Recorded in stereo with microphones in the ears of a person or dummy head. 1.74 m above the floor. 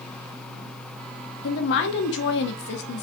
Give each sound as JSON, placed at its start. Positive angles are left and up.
{"t": 1.4, "sound": "a woman speaking", "side_deg": 60, "distance_m": 0.8}